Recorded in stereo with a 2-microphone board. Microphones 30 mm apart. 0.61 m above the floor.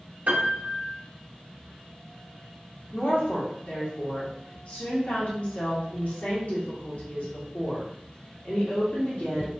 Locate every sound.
0.3 s a piano: 60° right (ahead or behind), 1.3 m
2.9 s a woman speaking: 55° left (ahead or behind), 1.3 m